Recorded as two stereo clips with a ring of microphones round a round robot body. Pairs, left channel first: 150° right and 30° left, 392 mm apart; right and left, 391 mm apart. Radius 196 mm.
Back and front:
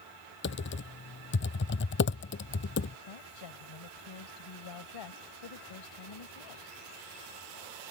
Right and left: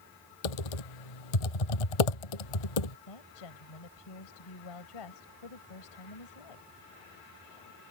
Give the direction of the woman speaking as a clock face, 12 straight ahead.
4 o'clock.